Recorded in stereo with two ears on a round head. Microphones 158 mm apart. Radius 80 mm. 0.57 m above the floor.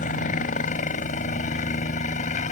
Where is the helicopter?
45° left (ahead or behind); by 2.5 s 40° left (ahead or behind).